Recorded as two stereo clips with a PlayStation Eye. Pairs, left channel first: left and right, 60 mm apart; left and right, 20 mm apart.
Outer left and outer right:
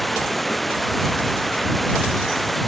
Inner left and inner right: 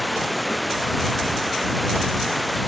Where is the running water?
Centre (ahead or behind).